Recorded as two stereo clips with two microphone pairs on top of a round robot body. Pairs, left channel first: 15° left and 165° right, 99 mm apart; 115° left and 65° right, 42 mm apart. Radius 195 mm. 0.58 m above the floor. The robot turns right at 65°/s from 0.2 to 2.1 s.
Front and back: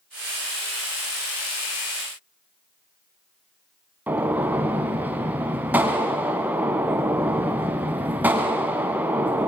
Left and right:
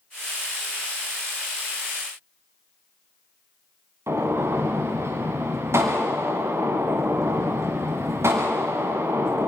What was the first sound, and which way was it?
A gunshot, 90° right.